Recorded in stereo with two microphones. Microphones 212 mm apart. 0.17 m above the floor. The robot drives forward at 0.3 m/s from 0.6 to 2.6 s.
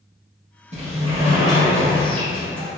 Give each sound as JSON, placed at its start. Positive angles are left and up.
{"t": 0.7, "sound": "a sliding door", "side_deg": -35, "distance_m": 1.4}